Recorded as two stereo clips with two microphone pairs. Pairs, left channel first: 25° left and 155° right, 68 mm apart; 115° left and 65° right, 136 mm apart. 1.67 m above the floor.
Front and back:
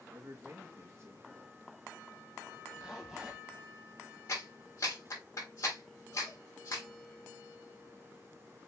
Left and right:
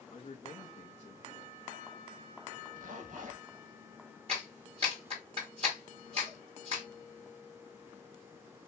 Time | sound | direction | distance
0.1 | a man speaking | 160° left | 2.5 m
2.8 | a zipper | 75° right | 1.7 m
4.3 | a clap | 20° right | 3.5 m